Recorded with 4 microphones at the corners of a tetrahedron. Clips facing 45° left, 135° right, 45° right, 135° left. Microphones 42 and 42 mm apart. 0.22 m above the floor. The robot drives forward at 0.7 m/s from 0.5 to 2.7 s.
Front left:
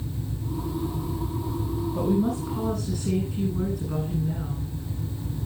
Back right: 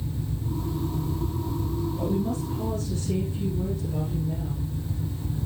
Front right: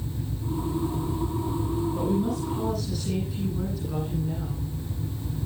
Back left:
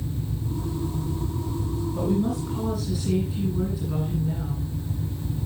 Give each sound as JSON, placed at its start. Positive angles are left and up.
{"t": 1.9, "sound": "a woman speaking", "azimuth_deg": 55, "distance_m": 10.0}